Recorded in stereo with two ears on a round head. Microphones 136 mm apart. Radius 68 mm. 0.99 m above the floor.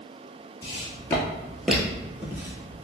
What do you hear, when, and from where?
0.6 s footsteps: 25° left (ahead or behind), 1.0 m; by 2.8 s 20° right (ahead or behind), 1.3 m